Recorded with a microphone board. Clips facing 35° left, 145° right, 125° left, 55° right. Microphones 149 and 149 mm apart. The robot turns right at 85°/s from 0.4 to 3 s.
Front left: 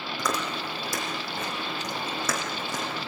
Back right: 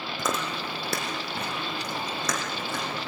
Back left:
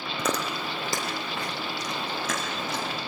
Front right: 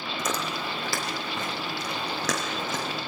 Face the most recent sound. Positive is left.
turn(degrees=10)